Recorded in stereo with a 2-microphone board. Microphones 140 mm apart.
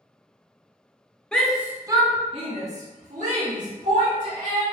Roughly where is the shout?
Centre.